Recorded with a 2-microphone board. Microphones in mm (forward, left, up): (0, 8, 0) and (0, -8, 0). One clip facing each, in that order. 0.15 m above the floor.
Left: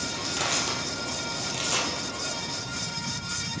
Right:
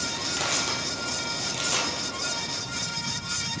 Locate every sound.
0.1 s crushing: 5° right (ahead or behind), 2.0 m